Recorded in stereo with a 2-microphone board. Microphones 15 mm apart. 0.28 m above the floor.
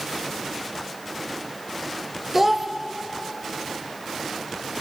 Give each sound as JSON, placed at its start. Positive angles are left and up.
{"t": 2.3, "sound": "a child speaking", "side_deg": -15, "distance_m": 0.7}